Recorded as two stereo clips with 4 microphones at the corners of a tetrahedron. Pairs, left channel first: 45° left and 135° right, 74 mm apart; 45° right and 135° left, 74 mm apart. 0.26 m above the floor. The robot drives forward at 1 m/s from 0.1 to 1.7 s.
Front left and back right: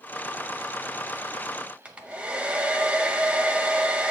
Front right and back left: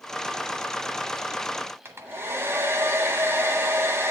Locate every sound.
1.9 s a hair dryer: 160° left, 1.0 m